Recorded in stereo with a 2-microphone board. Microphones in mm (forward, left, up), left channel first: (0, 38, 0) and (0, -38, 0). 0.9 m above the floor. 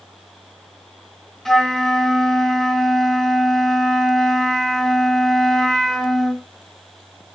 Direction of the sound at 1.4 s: 5° left (ahead or behind).